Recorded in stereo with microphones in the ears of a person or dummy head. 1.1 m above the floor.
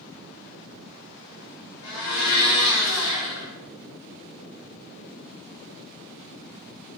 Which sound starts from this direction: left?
A blender, at 1.8 s.